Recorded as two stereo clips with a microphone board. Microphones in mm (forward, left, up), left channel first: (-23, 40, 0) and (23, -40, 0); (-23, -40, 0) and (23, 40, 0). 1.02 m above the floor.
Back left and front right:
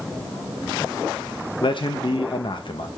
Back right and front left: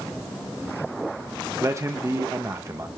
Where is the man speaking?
110° left, 1.1 m.